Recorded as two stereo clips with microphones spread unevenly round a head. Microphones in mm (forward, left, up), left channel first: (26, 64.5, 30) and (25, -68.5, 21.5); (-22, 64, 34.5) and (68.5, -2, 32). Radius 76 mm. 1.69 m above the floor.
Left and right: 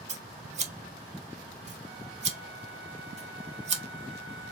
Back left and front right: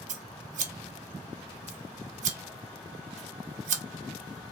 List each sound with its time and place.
0.1 s scissors: 55° right, 0.8 m